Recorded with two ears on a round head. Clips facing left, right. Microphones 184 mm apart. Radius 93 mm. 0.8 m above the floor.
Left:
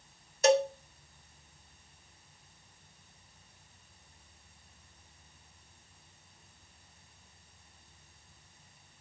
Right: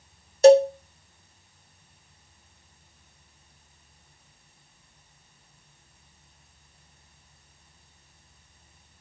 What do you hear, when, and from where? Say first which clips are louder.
0.4 s a cowbell: right 12 dB; 30° right (ahead or behind), 0.5 m